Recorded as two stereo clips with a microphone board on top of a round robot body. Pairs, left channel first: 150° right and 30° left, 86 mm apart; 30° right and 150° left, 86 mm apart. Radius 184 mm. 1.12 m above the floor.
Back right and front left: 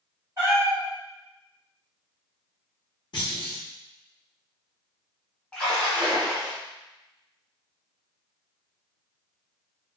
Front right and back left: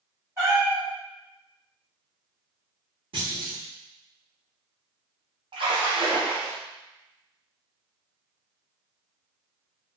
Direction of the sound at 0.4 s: 85° left.